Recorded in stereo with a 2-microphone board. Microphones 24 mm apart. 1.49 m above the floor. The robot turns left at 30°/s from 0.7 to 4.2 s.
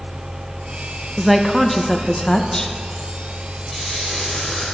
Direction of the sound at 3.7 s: 15° left (ahead or behind).